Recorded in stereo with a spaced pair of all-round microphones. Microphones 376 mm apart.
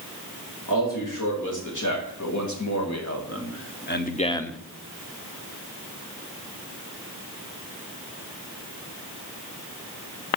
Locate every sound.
0.7 s a man speaking: 55° left (ahead or behind), 3.5 m; by 4.6 s centre (ahead or behind), 0.7 m